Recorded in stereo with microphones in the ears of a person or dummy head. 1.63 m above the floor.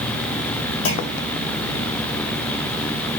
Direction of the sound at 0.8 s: 75° left (ahead or behind).